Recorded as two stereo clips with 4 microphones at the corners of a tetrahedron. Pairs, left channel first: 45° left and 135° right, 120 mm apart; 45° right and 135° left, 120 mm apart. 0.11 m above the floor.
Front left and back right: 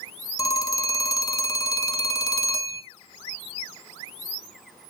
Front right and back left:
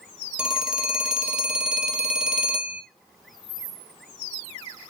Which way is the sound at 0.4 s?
60° left.